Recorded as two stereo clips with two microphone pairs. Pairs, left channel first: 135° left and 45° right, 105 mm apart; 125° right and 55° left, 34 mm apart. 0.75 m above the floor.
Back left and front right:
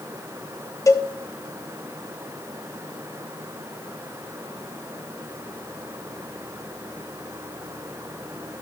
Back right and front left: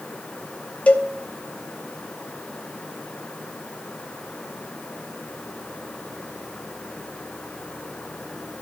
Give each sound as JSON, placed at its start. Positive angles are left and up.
{"t": 0.9, "sound": "a cowbell", "azimuth_deg": -170, "distance_m": 0.9}